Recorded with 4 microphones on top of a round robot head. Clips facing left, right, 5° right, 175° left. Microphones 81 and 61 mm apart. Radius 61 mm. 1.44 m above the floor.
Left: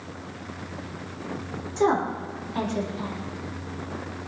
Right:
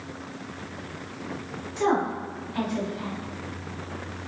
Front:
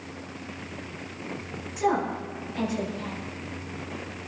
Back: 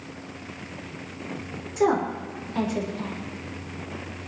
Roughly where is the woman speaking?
Behind left.